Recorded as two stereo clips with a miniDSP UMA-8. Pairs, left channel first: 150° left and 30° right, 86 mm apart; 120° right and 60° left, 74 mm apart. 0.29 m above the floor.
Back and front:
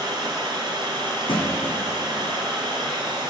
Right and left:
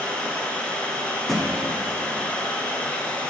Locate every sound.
0.0 s running water: 50° right, 1.1 m
1.3 s a thud: 150° left, 1.1 m